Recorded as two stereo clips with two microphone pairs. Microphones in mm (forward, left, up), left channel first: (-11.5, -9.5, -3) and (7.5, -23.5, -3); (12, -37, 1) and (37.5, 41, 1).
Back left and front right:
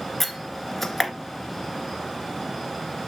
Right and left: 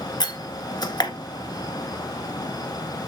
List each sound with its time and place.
0.2 s a door slam: 135° right, 1.7 m